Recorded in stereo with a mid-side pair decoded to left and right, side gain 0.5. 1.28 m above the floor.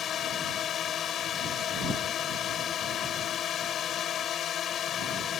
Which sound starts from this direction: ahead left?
A drone, at 0.0 s.